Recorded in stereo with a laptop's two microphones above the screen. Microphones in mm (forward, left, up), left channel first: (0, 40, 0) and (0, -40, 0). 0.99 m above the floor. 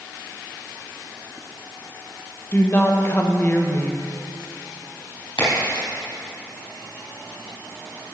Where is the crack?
85° left, 3.5 m.